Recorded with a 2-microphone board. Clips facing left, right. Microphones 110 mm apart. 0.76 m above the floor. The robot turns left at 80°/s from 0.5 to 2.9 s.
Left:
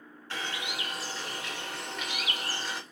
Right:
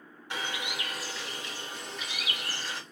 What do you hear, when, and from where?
0.3 s a bird: 165° right, 2 m; by 2.8 s 10° left, 2 m